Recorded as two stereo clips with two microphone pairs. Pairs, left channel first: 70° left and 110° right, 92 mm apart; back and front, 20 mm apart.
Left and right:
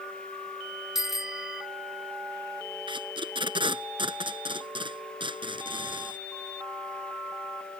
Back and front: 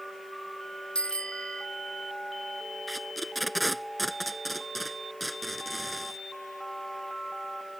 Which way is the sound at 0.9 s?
160° left.